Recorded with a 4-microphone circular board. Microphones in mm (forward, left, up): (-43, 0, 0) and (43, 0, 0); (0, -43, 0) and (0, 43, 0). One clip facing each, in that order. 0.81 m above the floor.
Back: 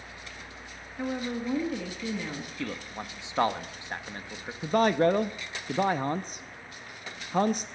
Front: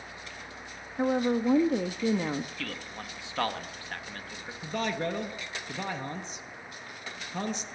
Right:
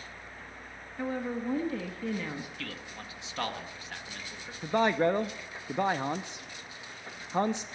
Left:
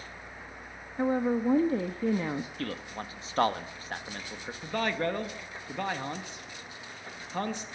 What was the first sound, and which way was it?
A woman speaking, 40° left.